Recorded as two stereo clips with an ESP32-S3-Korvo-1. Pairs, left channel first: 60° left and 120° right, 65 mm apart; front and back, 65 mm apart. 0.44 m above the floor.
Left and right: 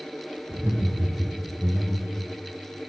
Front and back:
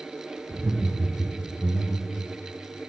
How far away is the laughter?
About 0.9 m.